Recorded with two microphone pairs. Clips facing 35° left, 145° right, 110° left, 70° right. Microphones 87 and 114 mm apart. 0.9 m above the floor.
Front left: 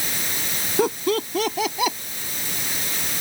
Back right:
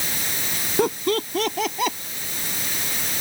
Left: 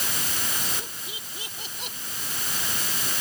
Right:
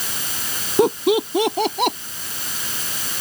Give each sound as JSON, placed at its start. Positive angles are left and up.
{"t": 0.8, "sound": "laughter", "azimuth_deg": -55}